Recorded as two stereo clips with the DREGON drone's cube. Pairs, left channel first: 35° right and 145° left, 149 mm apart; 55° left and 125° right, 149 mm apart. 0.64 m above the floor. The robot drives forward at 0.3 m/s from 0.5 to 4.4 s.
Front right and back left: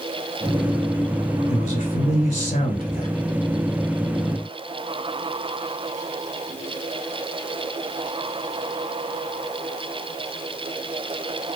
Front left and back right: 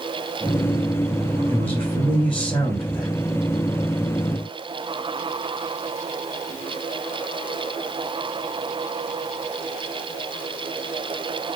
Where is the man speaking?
20° right, 2 m; by 3.1 s 25° right, 1.7 m.